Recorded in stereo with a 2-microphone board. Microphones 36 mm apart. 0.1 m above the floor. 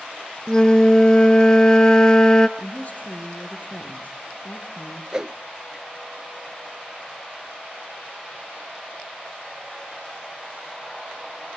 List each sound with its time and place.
0.5 s a flute: 20° left (ahead or behind), 0.6 m
2.6 s a woman speaking: 45° left (ahead or behind), 2.5 m
5.1 s a whoosh: 20° right (ahead or behind), 0.6 m